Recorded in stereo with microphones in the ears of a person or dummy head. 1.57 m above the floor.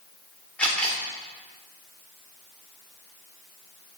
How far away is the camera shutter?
About 3 m.